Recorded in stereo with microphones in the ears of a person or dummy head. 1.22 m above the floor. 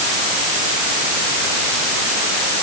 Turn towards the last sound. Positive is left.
No sound to turn to.